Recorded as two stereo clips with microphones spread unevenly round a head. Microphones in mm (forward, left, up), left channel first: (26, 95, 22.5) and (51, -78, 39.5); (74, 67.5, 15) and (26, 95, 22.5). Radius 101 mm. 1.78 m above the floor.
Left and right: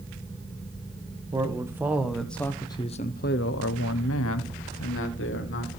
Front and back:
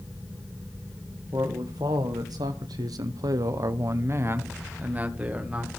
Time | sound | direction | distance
1.3 | a man speaking | 155° right | 2 m